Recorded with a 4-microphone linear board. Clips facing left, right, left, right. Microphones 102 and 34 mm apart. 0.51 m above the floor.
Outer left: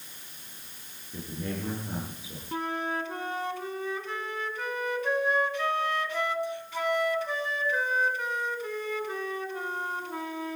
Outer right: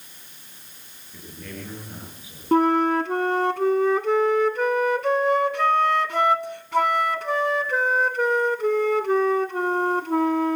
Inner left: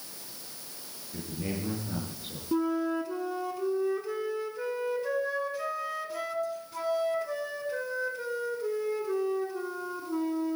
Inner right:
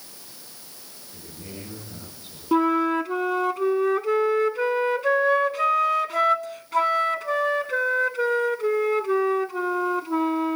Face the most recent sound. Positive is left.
turn(degrees=-70)  # may be behind; listen again after turning